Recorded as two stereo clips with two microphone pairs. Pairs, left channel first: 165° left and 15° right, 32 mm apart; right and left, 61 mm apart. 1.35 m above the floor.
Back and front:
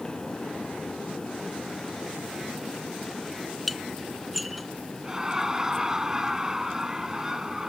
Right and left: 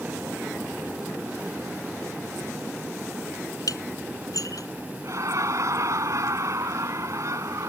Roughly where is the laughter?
Ahead left.